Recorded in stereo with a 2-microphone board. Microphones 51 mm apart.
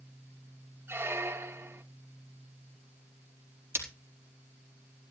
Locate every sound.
0.9 s a squeak: 55° right (ahead or behind), 0.8 m
3.8 s breaking glass: 55° right (ahead or behind), 4.5 m